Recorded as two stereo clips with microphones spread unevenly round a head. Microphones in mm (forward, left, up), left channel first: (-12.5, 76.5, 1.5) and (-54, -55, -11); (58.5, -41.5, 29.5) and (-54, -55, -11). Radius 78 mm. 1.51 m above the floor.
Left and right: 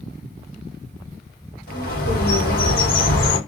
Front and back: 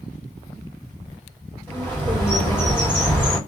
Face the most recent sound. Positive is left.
turn(degrees=80)